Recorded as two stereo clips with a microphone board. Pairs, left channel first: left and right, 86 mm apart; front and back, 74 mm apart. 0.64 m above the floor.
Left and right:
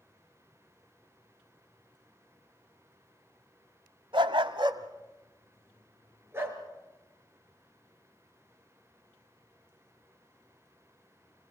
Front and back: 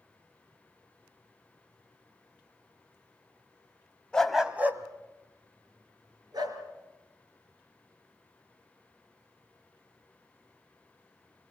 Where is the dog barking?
80° right, 1.3 m; by 6.6 s 155° right, 4 m.